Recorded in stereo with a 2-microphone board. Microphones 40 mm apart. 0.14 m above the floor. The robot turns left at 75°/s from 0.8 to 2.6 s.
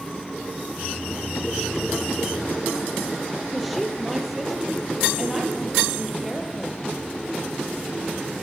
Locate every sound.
3.5 s a woman speaking: 5° right (ahead or behind), 4 m